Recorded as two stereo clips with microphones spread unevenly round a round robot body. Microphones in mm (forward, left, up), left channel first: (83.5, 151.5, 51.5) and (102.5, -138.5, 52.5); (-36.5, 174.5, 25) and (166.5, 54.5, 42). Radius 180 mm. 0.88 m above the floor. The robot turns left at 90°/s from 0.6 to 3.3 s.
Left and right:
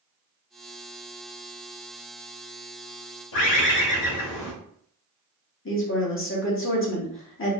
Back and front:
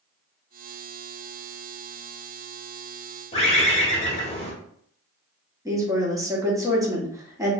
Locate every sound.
3.3 s a bird: 80° left, 1.5 m
5.7 s a woman speaking: 50° left, 1.4 m